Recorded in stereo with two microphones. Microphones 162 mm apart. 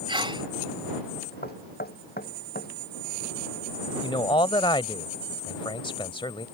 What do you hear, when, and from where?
0.1 s a sneeze: 30° right (ahead or behind)
1.4 s knocking: 75° left (ahead or behind)
4.0 s a man speaking: 30° left (ahead or behind)